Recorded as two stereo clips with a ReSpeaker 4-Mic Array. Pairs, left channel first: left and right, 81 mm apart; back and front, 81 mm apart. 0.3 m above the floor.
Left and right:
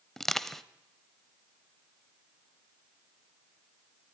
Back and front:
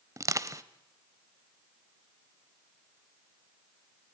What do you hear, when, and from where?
0.2 s crushing: 5° left, 1.0 m